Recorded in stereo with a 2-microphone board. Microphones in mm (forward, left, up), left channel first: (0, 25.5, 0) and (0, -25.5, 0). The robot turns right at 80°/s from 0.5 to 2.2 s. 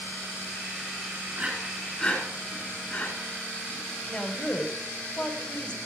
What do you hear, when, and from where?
1.3 s breathing: 40° right (ahead or behind), 4 m; by 3.1 s 25° left (ahead or behind), 4 m
4.1 s a woman speaking: 20° left (ahead or behind), 1.5 m